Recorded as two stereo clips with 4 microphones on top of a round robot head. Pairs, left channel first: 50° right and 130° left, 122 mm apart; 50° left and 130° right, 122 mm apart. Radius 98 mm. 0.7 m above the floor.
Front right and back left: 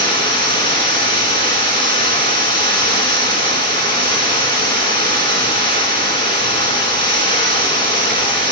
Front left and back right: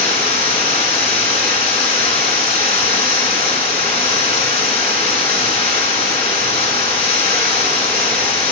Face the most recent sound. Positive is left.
turn(degrees=5)